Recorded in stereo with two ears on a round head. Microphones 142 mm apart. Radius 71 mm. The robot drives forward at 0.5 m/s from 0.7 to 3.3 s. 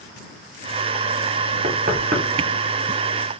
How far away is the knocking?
About 1.0 m.